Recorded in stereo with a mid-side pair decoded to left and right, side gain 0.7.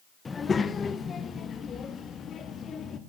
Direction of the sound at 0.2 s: 20° left.